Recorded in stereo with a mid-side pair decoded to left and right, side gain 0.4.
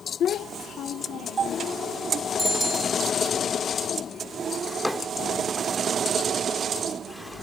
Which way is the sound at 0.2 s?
70° left.